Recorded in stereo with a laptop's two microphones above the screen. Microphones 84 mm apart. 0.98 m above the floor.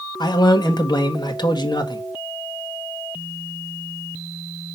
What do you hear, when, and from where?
0.2 s a man speaking: 55° left (ahead or behind), 1.5 m